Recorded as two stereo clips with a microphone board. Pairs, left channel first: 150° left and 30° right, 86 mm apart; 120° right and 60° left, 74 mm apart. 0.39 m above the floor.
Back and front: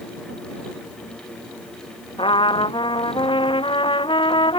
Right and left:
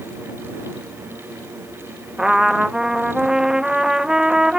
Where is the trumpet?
140° left.